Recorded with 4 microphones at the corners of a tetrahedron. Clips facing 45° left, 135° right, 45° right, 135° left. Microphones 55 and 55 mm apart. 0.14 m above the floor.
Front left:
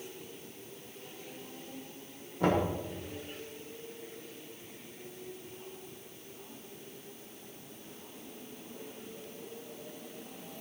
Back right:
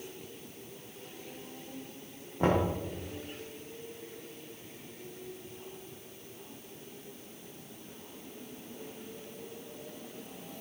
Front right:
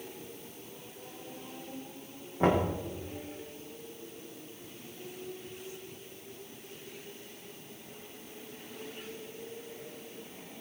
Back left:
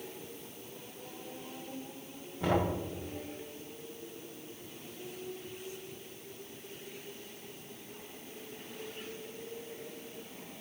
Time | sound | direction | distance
2.4 | knocking | 85° right | 5.5 m